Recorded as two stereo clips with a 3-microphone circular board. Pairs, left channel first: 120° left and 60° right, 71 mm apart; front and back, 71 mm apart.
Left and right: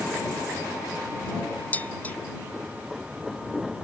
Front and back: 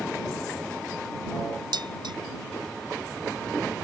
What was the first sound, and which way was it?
Dishes clattering, 170° right.